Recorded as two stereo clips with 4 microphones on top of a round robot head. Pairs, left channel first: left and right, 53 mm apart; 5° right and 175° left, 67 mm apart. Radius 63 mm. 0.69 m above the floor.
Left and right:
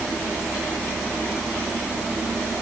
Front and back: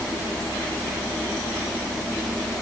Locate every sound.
Only background noise.